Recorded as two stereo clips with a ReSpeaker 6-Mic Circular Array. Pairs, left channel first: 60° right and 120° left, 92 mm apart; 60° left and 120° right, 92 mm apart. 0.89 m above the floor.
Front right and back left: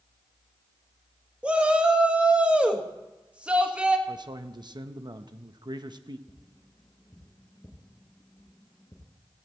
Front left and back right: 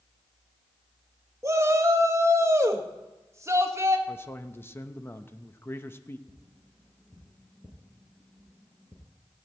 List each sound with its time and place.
1.4 s a shout: 165° right, 1.4 m
4.1 s a man speaking: 120° left, 0.8 m
6.3 s tapping: 10° right, 4.5 m